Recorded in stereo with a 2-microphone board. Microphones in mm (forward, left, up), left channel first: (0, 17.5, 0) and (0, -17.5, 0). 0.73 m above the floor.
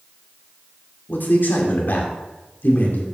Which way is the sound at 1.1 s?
70° left (ahead or behind).